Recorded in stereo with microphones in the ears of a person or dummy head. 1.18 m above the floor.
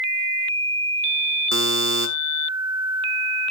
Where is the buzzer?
65° right (ahead or behind), 1.4 m.